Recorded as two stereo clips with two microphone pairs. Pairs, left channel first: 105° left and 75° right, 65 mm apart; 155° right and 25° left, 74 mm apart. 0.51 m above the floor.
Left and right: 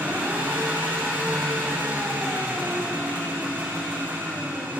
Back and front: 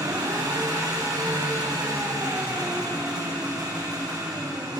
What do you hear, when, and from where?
0.0 s an engine running: 10° right, 7.5 m